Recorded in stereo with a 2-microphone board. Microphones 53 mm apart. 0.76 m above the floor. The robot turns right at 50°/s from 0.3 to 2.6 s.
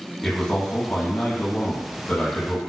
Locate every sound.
0.2 s a man speaking: 15° left, 0.9 m; by 2.7 s 130° left, 0.9 m